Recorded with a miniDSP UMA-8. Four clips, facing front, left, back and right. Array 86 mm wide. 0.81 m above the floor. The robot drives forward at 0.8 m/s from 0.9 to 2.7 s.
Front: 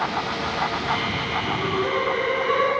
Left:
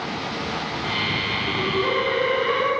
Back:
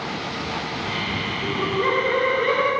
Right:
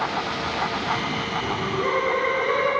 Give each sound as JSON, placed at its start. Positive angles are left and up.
{"t": 1.4, "sound": "laughter", "azimuth_deg": -165, "distance_m": 2.5}